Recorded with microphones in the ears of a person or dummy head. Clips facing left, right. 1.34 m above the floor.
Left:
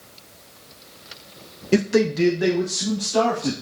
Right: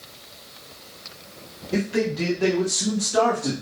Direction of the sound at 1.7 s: 80° left.